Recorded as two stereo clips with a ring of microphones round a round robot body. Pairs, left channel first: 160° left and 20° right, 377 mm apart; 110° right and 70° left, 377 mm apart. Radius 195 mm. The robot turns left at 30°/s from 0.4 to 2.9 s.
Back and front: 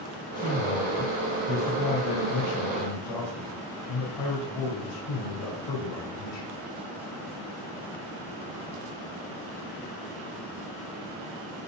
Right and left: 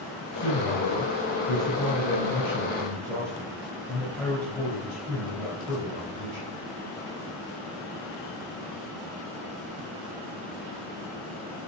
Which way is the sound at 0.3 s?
125° right.